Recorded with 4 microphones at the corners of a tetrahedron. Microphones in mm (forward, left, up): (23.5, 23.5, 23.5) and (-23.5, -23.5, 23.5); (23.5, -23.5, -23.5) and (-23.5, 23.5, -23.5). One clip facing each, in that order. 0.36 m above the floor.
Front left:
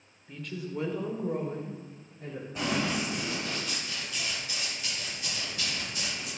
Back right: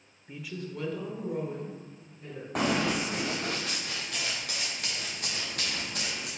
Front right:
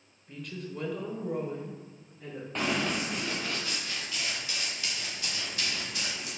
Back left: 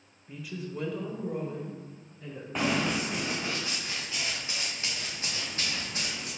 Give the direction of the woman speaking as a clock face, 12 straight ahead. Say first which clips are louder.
Front left 2 dB, back left 1 dB; 5 o'clock.